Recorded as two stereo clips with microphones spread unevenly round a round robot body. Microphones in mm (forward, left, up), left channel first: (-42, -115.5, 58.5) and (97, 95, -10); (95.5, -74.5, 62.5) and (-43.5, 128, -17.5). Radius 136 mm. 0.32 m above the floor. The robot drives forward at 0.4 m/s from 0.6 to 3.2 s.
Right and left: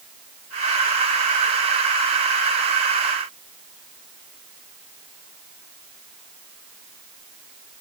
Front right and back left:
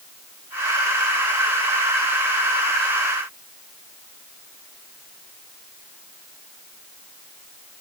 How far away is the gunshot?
I don't hear a gunshot.